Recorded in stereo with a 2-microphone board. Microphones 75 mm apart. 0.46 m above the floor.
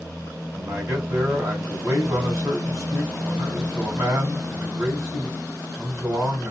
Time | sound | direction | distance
0.5 | a man speaking | 40° right (ahead or behind) | 3 m